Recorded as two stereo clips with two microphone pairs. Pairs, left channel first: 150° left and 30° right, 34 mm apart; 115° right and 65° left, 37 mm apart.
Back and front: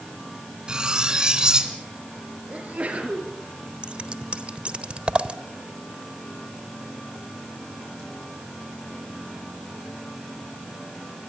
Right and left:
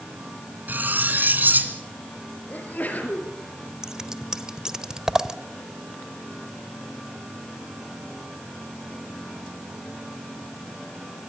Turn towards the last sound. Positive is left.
turn(degrees=5)